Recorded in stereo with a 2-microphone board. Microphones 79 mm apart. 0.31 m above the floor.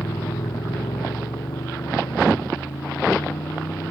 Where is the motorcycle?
85° left.